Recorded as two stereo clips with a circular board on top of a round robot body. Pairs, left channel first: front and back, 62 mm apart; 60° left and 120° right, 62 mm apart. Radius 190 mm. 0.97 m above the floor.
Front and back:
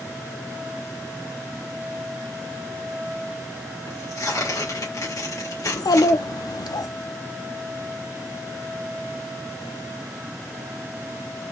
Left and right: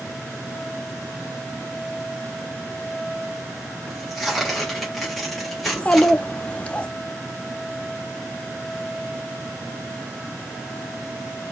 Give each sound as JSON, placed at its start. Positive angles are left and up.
{"t": 3.9, "sound": "tearing paper", "azimuth_deg": -30, "distance_m": 2.0}
{"t": 5.7, "sound": "a child speaking", "azimuth_deg": -10, "distance_m": 0.5}